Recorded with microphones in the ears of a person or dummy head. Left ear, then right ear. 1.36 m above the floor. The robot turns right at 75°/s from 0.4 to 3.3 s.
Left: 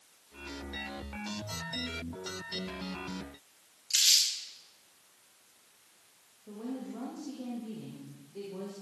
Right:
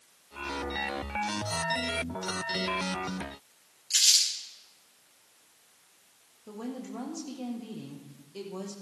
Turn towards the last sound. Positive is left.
turn(degrees=-70)  # may be behind; listen again after turning